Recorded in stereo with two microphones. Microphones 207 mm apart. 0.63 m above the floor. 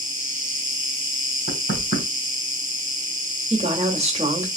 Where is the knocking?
65° left (ahead or behind), 4 m.